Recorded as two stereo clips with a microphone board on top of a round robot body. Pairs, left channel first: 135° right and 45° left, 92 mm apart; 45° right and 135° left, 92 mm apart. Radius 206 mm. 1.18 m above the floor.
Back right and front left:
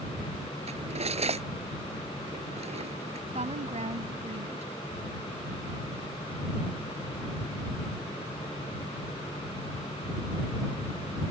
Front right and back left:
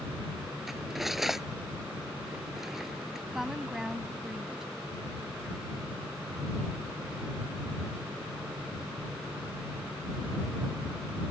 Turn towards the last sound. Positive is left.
turn(degrees=50)